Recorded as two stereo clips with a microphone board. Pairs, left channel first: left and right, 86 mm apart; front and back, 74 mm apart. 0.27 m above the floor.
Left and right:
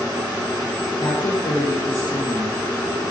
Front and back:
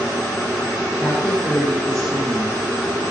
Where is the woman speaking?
75° left, 4 m.